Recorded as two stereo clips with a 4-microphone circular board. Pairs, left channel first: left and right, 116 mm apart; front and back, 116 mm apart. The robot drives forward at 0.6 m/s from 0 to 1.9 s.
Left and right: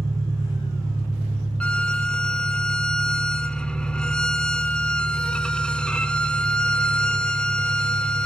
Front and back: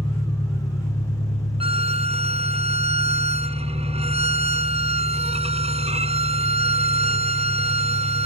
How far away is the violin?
About 0.6 m.